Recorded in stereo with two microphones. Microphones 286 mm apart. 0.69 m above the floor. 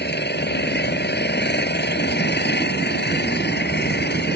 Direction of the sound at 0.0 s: 35° left (ahead or behind).